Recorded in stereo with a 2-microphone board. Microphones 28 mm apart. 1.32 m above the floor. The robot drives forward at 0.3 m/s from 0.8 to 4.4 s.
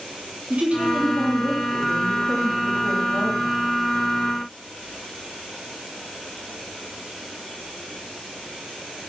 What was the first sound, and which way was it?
A woman speaking, 55° right (ahead or behind).